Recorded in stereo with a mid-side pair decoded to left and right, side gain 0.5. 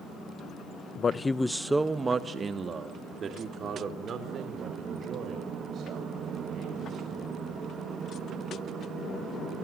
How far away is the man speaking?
About 1.0 m.